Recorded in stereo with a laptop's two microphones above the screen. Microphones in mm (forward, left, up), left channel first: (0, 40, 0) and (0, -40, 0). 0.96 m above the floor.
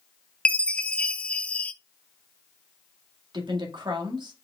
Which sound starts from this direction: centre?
A chime, at 0.5 s.